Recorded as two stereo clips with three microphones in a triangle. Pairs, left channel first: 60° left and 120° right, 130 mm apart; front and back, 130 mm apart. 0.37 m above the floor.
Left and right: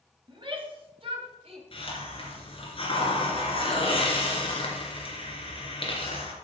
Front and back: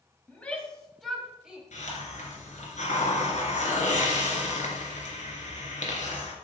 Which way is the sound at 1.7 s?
15° left.